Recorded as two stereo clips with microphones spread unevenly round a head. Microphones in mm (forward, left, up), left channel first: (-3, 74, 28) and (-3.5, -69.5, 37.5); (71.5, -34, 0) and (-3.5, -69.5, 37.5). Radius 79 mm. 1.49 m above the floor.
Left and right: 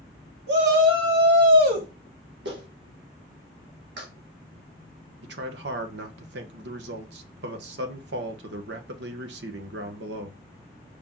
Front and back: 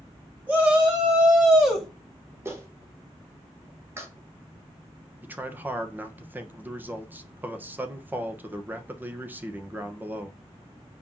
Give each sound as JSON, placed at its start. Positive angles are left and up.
{"t": 0.5, "sound": "a shout", "azimuth_deg": -85, "distance_m": 3.5}
{"t": 2.5, "sound": "a clap", "azimuth_deg": -95, "distance_m": 1.9}
{"t": 5.2, "sound": "a man speaking", "azimuth_deg": -85, "distance_m": 1.4}